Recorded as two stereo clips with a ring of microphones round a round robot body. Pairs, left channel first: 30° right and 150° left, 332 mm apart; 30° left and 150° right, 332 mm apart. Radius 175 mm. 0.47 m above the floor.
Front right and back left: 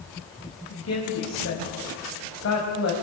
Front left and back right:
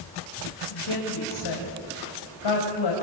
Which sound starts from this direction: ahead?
A woman speaking, at 0.7 s.